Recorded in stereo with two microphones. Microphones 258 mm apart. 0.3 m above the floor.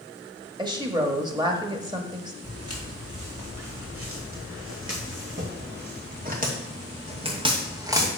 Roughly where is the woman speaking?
Centre.